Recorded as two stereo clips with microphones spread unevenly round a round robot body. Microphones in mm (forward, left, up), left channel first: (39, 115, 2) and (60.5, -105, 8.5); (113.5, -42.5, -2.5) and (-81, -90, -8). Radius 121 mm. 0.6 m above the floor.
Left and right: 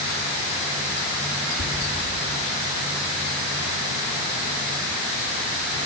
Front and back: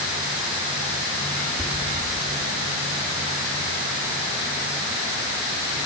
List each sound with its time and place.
1.6 s whispering: 100° left, 1.4 m